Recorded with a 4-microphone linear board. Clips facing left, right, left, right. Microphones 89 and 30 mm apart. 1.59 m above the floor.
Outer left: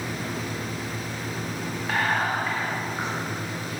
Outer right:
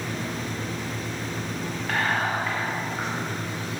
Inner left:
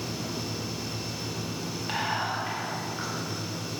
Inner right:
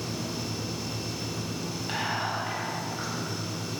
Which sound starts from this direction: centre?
Whispering, at 1.9 s.